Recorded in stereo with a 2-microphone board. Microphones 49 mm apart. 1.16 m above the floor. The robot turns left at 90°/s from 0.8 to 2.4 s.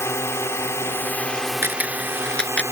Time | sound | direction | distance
0.0 | a drone | 70° left | ?
1.6 | a camera shutter | 50° right (ahead or behind) | ?